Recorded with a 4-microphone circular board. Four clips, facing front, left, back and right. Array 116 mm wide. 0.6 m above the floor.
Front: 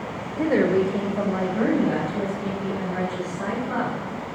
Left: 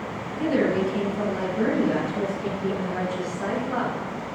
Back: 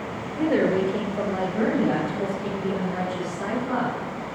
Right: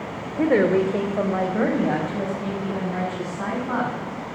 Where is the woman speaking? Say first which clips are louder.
Right 4 dB, front 1 dB; 80° right, 2 m; by 3.9 s 100° right, 7.5 m.